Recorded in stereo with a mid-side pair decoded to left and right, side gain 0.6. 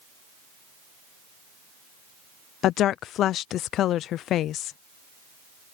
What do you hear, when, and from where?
2.6 s a woman speaking: 55° left